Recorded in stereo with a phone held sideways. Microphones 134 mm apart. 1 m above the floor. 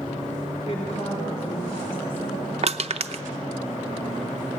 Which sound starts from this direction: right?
Crushing, at 2.6 s.